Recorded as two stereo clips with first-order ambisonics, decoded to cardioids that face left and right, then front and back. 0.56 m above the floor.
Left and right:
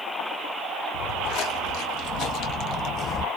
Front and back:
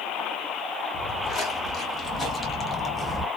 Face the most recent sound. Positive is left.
turn(degrees=90)